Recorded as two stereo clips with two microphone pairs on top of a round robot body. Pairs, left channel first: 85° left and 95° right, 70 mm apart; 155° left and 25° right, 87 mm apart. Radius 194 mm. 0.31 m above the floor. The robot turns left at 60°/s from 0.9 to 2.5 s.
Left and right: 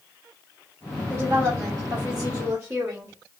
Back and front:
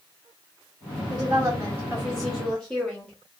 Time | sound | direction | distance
1.1 | a woman speaking | 50° right | 1.7 m